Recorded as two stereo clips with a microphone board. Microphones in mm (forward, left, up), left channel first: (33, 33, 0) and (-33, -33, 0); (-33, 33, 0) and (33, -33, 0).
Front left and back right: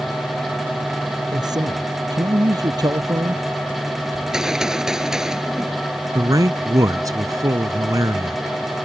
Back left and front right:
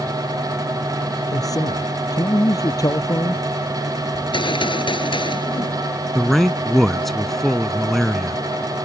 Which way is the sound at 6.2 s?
140° right.